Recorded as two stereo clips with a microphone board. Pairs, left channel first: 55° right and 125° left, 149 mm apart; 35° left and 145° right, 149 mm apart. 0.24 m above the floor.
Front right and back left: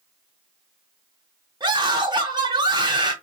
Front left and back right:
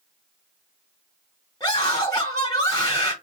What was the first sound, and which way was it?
A scream, 85° left.